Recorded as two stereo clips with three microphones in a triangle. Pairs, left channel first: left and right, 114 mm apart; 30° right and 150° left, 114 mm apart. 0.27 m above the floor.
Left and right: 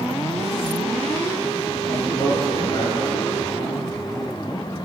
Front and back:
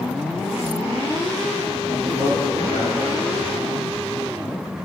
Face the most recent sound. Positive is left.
turn(degrees=130)